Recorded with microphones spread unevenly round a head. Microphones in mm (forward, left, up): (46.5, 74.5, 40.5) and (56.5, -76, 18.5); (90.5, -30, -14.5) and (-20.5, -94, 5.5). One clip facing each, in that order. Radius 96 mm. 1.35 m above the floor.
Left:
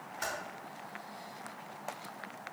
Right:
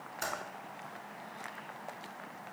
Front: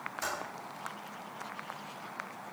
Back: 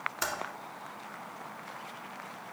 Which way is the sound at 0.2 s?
145° right.